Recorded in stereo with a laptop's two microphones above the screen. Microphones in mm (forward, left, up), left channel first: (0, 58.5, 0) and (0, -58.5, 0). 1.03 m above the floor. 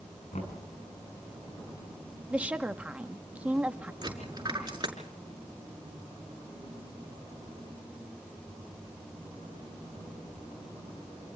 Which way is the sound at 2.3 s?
10° right (ahead or behind).